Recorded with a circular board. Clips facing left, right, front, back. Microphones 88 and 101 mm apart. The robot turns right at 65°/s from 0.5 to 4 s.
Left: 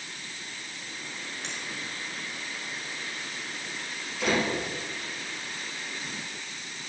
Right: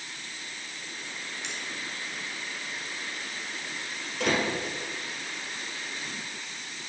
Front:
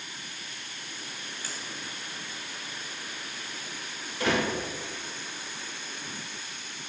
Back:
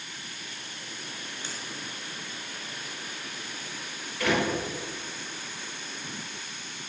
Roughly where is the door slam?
Ahead right.